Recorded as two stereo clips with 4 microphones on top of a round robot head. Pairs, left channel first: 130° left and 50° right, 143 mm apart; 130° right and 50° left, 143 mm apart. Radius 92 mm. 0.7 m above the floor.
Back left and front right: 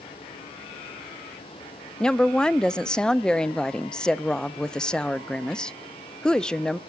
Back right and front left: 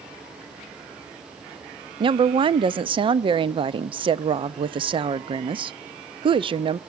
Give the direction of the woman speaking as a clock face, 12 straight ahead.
10 o'clock.